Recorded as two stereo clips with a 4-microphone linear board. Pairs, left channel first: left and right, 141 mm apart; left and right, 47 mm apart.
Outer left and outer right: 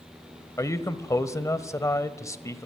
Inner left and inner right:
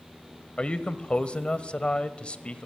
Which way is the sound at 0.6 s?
20° left (ahead or behind).